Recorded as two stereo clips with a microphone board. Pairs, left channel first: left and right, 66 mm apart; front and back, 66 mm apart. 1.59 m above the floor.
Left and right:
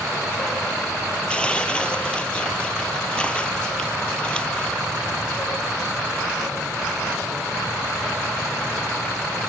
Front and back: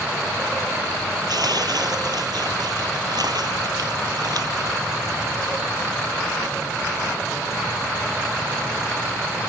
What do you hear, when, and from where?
1.3 s tearing paper: 165° left